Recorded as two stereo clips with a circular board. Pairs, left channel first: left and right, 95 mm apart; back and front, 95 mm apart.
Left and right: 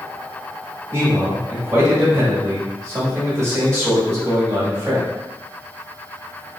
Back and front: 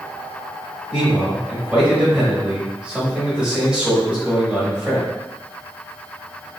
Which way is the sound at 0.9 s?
70° right.